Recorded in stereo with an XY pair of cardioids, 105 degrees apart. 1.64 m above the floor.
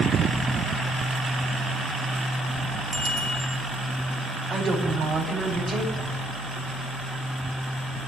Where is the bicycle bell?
30° right, 7.5 m.